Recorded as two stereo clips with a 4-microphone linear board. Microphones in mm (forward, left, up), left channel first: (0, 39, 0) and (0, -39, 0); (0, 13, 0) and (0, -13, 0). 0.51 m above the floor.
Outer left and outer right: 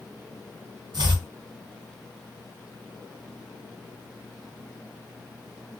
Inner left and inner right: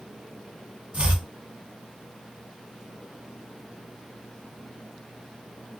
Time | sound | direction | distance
0.9 | chopping | 60° right (ahead or behind) | 1.8 m